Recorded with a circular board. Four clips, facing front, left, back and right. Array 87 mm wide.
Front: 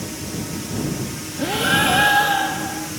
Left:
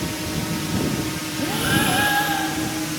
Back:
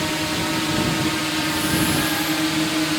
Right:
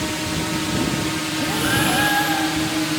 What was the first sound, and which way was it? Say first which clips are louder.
A drone: right 2 dB, back 6 dB; 160° right.